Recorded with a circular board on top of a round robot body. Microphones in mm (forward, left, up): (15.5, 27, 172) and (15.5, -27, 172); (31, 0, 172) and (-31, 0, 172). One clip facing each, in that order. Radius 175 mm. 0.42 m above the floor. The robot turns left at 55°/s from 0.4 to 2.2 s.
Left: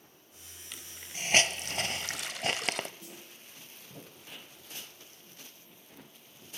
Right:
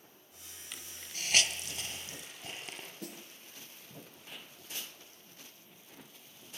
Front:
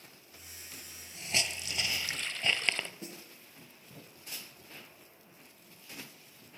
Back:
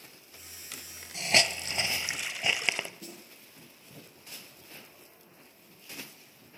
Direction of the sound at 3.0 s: 65° right.